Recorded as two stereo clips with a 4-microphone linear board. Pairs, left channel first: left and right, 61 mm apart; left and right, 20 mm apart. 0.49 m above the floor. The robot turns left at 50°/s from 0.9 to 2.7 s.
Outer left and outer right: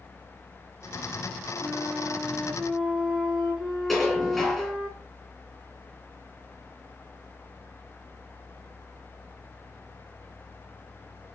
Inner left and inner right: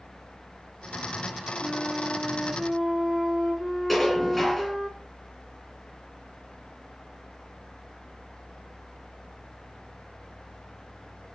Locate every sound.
1.6 s a flute: 125° right, 5 m; by 4.9 s straight behind, 5 m
3.9 s dishes clattering: 5° left (ahead or behind), 7.5 m